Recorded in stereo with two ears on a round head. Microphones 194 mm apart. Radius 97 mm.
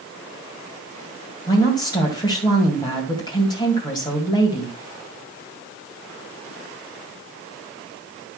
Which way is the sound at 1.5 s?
20° left (ahead or behind).